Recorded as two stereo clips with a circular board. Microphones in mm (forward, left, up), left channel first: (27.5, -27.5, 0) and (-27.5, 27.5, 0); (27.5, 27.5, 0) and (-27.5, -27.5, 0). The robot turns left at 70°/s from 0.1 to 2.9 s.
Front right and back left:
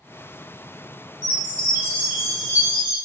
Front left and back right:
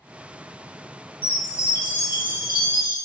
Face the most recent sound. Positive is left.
turn(degrees=0)